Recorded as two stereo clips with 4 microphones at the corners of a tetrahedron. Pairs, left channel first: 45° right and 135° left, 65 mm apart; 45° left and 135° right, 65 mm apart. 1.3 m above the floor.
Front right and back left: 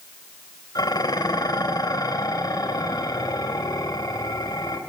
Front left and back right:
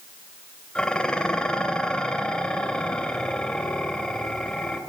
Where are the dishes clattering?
35° right, 3.5 m.